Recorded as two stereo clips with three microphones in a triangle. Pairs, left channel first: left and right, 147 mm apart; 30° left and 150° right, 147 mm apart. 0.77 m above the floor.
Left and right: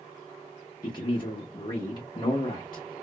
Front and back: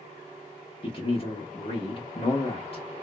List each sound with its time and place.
0.8 s a man speaking: 50° left, 0.7 m